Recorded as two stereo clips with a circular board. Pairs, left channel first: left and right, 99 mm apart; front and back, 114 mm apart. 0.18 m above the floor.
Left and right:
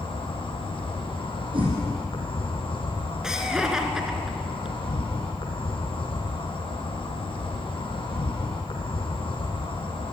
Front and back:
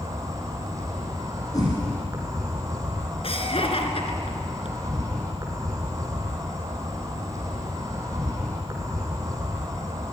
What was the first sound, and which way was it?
An insect, 120° left.